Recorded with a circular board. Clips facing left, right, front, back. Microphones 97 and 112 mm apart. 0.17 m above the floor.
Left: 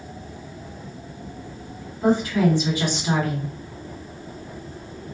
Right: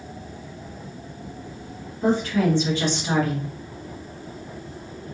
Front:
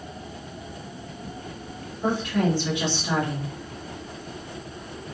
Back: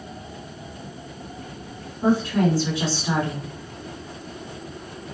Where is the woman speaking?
160° left, 1.7 m.